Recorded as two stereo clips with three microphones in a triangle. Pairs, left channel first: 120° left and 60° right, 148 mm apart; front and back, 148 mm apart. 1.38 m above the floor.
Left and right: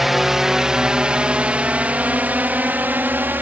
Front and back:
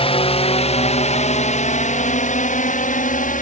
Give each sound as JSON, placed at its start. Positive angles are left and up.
{"t": 0.0, "sound": "a drone", "azimuth_deg": 25}